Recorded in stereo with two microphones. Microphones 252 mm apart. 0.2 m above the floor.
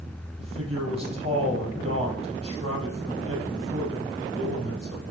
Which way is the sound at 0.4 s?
25° right (ahead or behind).